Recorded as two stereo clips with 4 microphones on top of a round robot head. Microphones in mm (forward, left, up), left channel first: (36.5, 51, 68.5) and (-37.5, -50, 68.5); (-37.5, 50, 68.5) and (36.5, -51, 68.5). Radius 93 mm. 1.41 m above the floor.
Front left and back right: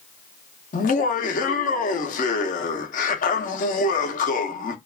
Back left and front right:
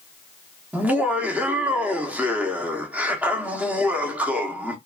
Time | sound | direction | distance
0.7 | laughter | 25° left | 0.8 m